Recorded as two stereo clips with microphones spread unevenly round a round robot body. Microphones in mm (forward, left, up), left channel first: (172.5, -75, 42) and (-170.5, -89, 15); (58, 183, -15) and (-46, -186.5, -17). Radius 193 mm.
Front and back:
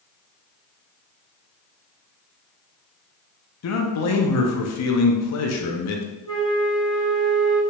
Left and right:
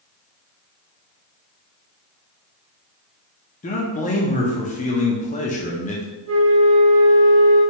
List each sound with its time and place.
3.6 s a man speaking: 15° left, 0.6 m
6.2 s a flute: 65° right, 1.2 m